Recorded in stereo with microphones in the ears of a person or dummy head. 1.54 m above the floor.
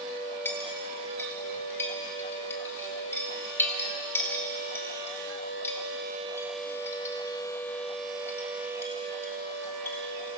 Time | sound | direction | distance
0.5 | a clink | 15° left (ahead or behind) | 3 m